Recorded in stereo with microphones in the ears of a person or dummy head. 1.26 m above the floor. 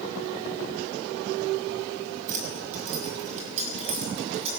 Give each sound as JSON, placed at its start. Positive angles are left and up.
{"t": 2.3, "sound": "keys jangling", "side_deg": -45, "distance_m": 5.5}